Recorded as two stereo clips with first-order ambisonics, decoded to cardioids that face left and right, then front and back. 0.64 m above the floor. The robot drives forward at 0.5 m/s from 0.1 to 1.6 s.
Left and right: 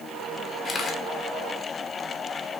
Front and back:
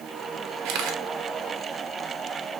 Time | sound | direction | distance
0.7 | a camera shutter | 160° left | 1.2 m